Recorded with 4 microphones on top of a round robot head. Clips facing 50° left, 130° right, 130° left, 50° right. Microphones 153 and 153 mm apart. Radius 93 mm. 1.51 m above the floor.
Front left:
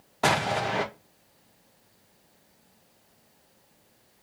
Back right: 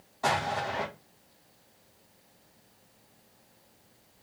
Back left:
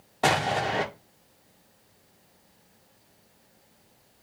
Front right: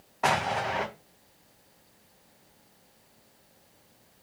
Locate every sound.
0.2 s an explosion: 75° left, 0.6 m